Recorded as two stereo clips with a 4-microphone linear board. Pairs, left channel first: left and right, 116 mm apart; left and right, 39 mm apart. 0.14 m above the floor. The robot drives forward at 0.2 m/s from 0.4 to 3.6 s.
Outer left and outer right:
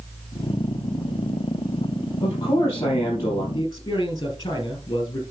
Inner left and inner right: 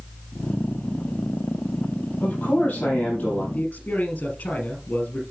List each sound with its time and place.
2.2 s a man speaking: 35° left (ahead or behind), 5 m
3.5 s a man speaking: 35° left (ahead or behind), 3.5 m